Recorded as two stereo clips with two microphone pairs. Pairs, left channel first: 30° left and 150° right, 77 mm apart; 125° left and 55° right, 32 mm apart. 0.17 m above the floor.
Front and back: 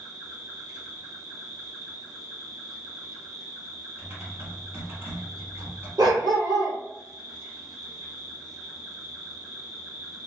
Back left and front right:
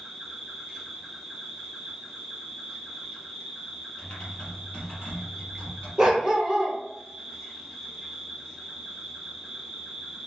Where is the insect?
140° right, 0.9 m.